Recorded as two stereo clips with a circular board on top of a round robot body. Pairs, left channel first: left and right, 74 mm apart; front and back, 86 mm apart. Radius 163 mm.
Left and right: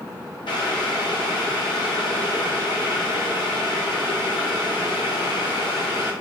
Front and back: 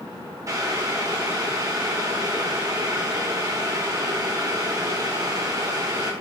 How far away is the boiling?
About 0.9 m.